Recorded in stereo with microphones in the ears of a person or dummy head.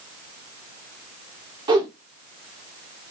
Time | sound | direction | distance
1.7 | a whoosh | 25° right (ahead or behind) | 1.1 m